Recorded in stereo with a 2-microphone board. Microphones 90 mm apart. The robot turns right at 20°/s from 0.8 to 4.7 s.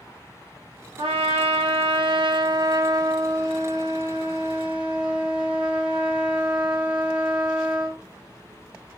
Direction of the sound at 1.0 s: 85° right.